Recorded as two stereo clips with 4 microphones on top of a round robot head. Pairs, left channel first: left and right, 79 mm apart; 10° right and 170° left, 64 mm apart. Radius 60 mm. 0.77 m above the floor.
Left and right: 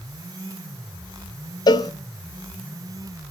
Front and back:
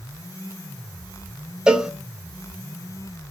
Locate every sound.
1.7 s a cowbell: 95° left, 0.9 m